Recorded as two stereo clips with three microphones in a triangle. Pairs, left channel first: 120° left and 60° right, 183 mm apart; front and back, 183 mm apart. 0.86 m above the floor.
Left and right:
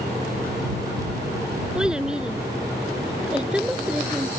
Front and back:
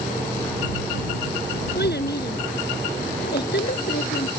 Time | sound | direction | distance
1.8 | a child speaking | 25° left | ?